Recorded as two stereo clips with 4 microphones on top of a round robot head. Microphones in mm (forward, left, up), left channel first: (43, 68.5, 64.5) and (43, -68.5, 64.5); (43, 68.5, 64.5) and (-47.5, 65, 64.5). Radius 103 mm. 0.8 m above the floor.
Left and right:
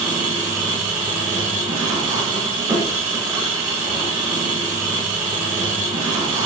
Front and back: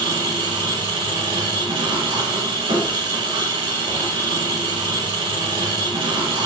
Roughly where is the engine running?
Behind.